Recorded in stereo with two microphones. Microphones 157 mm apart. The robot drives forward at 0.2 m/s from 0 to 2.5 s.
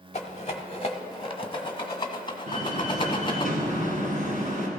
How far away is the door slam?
About 2.5 m.